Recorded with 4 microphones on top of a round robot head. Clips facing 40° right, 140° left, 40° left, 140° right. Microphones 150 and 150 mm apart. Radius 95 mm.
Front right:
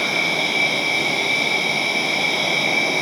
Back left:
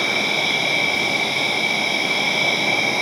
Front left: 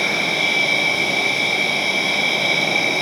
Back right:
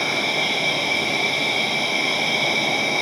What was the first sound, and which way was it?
An insect, 20° right.